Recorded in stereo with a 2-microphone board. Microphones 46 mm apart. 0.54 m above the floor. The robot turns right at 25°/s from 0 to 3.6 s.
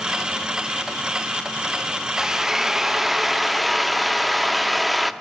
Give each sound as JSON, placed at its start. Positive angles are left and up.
{"t": 2.2, "sound": "a drill", "side_deg": -10, "distance_m": 0.6}